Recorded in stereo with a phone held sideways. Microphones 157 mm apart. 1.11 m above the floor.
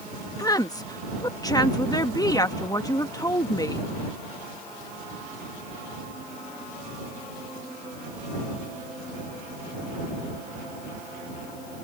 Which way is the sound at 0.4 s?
25° left (ahead or behind).